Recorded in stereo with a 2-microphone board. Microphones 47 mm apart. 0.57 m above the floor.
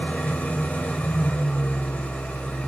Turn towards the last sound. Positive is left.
turn(degrees=35)  # may be behind; listen again after turning